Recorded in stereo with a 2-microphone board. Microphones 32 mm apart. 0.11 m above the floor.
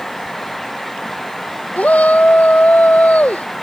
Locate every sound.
1.8 s a shout: 60° left (ahead or behind)